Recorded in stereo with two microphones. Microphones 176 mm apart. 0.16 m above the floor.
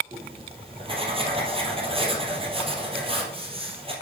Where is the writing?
30° right (ahead or behind), 3 m.